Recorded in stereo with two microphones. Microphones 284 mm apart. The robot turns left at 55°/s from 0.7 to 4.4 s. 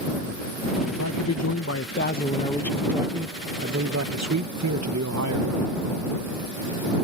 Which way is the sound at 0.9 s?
105° left.